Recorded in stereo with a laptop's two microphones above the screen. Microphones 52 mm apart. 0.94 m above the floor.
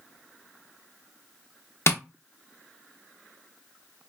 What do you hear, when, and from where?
1.9 s tapping: 60° left (ahead or behind), 0.9 m